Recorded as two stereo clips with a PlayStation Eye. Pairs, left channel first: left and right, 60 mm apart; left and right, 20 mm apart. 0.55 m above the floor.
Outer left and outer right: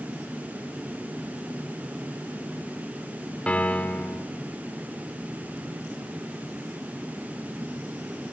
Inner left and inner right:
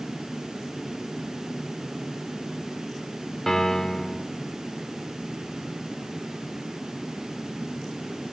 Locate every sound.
3.5 s a piano: 20° left (ahead or behind), 0.9 m